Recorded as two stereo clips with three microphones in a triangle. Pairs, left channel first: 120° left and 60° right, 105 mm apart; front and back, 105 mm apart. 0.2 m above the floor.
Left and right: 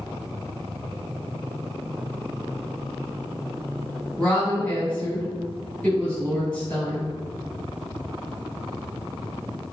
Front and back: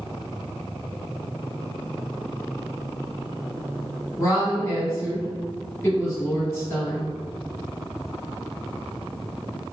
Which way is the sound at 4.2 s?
50° left.